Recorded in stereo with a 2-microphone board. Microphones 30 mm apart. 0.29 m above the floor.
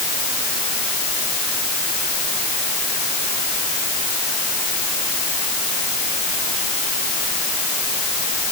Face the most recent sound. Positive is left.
No sound to turn to.